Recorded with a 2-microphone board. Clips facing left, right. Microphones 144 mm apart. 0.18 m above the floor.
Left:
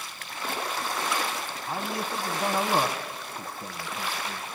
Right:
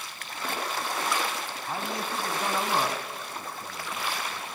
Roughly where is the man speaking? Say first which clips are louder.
Left 1 dB; centre.